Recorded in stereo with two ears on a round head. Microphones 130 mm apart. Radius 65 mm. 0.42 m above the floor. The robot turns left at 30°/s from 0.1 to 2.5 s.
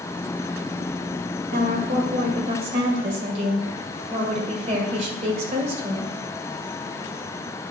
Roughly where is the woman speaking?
Right.